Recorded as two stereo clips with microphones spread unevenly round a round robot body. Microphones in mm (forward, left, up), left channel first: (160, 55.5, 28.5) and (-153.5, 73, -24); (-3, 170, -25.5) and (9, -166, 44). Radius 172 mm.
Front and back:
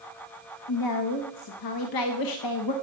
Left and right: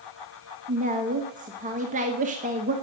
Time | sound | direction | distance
0.7 | a woman speaking | 15° right | 1.1 m